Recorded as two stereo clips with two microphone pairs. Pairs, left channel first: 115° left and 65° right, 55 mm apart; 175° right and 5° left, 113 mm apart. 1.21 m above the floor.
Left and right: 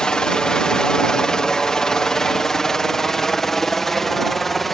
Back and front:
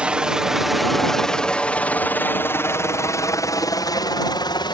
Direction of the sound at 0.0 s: 70° left.